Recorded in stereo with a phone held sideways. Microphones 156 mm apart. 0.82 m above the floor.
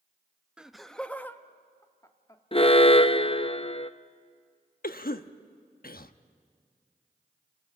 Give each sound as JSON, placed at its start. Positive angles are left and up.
{"t": 0.6, "sound": "laughter", "side_deg": -5, "distance_m": 0.8}
{"t": 2.5, "sound": "an alarm", "side_deg": 35, "distance_m": 0.6}
{"t": 4.8, "sound": "a cough", "side_deg": 70, "distance_m": 0.9}